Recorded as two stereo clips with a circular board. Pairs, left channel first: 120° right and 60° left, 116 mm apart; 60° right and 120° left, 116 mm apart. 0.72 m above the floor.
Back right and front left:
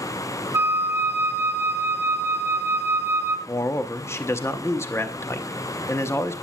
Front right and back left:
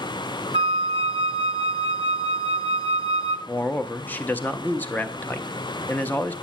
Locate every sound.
0.5 s a flute: 115° left, 0.9 m
3.5 s a man speaking: 110° right, 0.5 m